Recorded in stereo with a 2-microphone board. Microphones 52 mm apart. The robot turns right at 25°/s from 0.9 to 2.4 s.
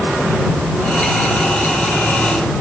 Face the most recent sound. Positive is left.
No sound to turn to.